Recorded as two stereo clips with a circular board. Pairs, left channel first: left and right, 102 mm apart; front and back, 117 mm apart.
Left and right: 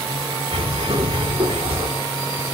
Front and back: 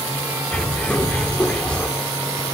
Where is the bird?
80° right, 1.9 m.